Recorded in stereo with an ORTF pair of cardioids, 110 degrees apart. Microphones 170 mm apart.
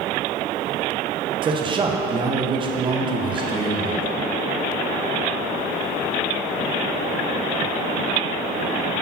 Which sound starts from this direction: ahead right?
A man speaking, at 1.4 s.